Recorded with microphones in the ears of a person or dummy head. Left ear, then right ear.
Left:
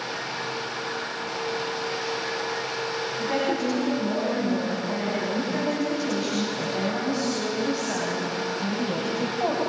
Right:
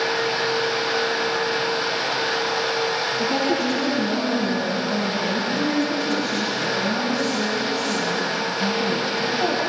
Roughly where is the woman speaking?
Left.